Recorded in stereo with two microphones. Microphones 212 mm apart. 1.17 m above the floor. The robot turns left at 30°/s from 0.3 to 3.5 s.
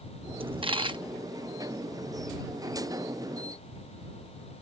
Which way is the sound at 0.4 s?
25° right (ahead or behind).